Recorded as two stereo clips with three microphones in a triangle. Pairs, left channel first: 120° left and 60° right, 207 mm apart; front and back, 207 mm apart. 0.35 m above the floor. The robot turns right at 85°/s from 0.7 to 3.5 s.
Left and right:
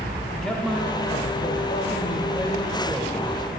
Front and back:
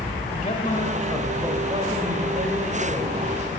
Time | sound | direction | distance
0.3 | a man speaking | 35° left | 1.2 m